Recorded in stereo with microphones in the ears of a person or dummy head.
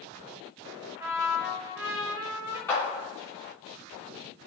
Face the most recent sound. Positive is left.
turn(degrees=5)  # may be behind; listen again after turning